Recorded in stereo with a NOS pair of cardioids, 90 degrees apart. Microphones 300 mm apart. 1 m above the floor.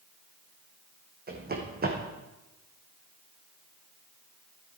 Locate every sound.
1.3 s running footsteps: 30° right, 3.5 m